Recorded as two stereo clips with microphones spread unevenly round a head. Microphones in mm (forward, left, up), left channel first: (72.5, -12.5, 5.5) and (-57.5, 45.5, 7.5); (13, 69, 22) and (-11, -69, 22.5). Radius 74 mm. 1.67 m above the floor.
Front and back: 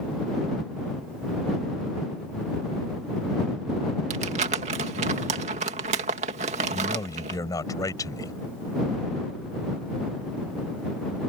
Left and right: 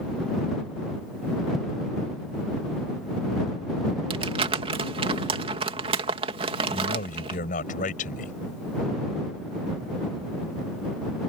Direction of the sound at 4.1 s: 155° right.